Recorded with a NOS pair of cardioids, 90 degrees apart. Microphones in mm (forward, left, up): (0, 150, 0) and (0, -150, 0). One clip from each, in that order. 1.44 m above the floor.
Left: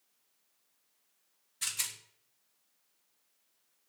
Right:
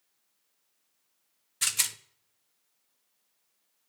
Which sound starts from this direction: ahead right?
A rattle, at 1.6 s.